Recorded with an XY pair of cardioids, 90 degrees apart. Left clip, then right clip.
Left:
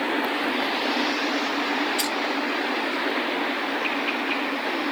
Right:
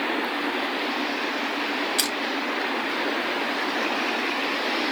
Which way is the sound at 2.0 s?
65° right.